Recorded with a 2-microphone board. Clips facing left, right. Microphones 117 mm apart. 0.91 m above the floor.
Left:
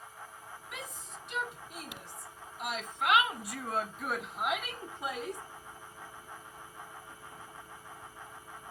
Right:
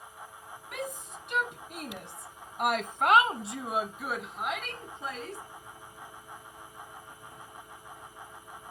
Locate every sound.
0.7 s a shout: 50° right (ahead or behind), 1.6 m; by 5.4 s 15° left (ahead or behind), 1.6 m